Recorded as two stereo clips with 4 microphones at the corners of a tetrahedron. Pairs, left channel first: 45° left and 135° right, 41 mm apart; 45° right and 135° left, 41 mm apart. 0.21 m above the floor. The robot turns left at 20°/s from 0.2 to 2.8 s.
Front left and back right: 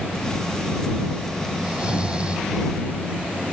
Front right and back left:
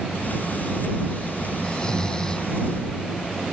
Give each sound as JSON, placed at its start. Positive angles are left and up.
{"t": 1.6, "sound": "snoring", "azimuth_deg": -90}